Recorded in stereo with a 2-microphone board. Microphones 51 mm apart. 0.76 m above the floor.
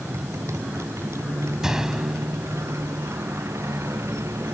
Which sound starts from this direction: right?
A motorcycle, at 0.0 s.